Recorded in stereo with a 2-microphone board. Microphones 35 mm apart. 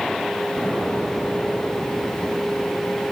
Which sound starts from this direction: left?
An explosion, at 0.6 s.